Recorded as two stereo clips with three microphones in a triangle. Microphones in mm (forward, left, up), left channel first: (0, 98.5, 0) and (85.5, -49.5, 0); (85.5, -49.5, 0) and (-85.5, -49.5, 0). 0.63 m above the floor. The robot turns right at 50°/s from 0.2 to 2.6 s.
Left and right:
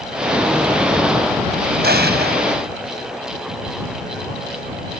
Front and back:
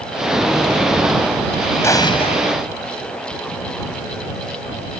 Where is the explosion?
75° right; by 2.4 s 45° right.